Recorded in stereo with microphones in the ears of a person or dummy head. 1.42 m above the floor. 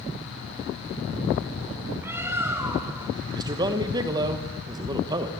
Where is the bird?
10° right (ahead or behind), 2.5 m.